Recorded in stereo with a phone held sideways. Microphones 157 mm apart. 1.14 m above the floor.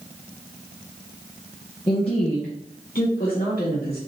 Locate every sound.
1.9 s a woman speaking: 30° left (ahead or behind), 0.7 m; by 4.0 s 80° left, 1.6 m